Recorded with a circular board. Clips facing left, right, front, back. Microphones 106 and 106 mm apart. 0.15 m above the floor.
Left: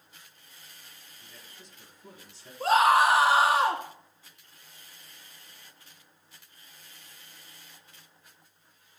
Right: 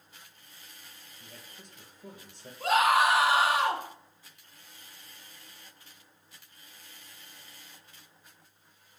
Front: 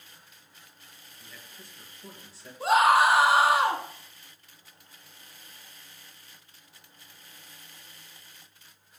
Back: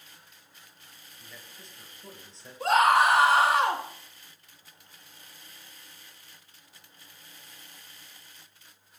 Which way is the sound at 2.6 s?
80° left.